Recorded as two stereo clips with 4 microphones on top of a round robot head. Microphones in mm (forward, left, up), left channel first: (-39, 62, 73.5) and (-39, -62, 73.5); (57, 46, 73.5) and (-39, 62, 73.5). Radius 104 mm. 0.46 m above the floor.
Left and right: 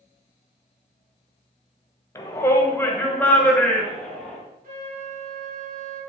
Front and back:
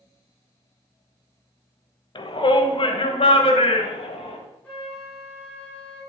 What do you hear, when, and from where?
2.1 s a shout: 25° left, 2 m; by 4.4 s 5° left, 3 m
4.6 s a flute: 90° right, 5.5 m